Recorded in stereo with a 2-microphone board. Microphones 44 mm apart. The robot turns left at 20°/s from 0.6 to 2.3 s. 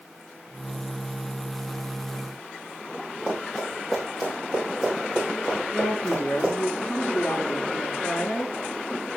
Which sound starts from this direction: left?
A woman speaking, at 5.7 s.